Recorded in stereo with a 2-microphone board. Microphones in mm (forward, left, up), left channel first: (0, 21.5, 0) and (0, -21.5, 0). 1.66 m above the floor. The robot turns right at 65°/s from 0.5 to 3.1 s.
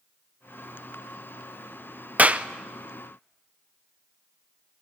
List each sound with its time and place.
2.2 s a clap: 35° right (ahead or behind), 0.7 m; by 2.5 s 25° right (ahead or behind), 0.7 m